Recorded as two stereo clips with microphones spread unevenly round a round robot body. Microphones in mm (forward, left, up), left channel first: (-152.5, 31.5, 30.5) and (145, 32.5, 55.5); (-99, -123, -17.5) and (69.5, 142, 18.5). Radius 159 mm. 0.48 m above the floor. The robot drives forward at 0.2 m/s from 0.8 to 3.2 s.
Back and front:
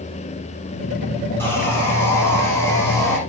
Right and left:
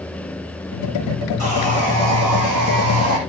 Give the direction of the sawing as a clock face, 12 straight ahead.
9 o'clock.